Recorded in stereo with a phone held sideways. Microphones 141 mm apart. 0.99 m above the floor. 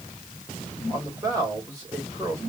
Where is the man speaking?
20° right (ahead or behind), 2.5 m.